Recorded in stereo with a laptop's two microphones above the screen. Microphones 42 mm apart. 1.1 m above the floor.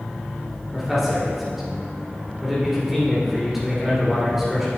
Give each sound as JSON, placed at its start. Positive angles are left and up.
{"t": 0.7, "sound": "a man speaking", "side_deg": -10, "distance_m": 3.0}